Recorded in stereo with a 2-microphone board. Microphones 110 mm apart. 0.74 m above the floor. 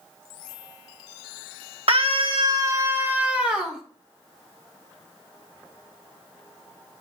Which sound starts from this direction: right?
A scream, at 1.9 s.